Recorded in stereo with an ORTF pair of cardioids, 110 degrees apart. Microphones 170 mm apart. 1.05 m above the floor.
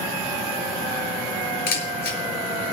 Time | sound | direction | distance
1.7 | a camera shutter | 70° left | 4 m